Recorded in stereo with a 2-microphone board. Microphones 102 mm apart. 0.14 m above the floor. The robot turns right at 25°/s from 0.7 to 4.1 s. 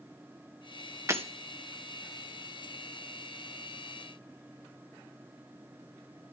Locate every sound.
1.1 s breaking glass: 30° right (ahead or behind), 2 m; by 1.2 s 25° right (ahead or behind), 2 m